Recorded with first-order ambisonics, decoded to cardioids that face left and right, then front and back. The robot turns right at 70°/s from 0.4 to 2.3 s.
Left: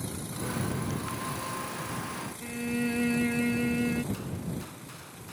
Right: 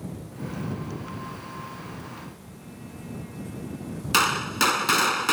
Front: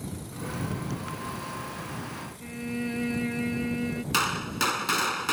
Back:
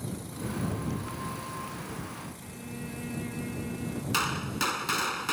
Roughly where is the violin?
Ahead left.